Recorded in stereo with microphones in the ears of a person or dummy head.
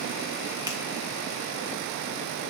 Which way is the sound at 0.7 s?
10° right (ahead or behind).